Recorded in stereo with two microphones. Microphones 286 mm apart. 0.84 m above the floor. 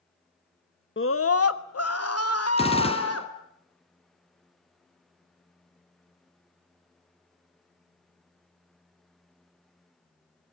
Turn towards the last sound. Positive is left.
turn(degrees=20)  # may be behind; listen again after turning